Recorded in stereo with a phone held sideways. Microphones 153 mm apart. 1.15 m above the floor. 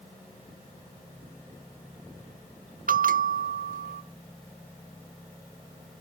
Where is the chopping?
I don't hear chopping.